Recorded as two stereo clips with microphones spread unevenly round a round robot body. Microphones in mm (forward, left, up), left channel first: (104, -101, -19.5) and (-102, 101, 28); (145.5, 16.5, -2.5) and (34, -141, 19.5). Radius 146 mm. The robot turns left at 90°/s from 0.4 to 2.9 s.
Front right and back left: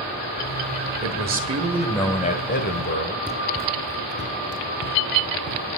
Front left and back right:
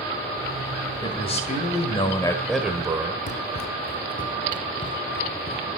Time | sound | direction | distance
1.0 | a man speaking | 110° left | 1.6 m
3.3 | running footsteps | 45° left | 0.6 m